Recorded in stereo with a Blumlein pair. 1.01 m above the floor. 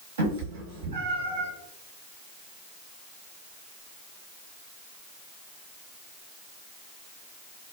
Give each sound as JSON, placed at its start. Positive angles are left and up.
{"t": 0.2, "sound": "a cat meowing", "azimuth_deg": -65, "distance_m": 1.0}